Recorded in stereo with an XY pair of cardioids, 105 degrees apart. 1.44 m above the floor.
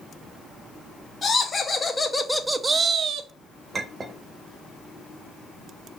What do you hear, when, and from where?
1.2 s laughter: 35° left, 1.3 m; by 3.3 s 75° right, 0.7 m
3.7 s a clink: 30° right, 0.9 m